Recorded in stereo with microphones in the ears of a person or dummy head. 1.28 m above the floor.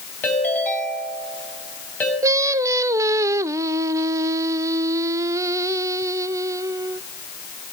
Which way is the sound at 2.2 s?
20° right (ahead or behind).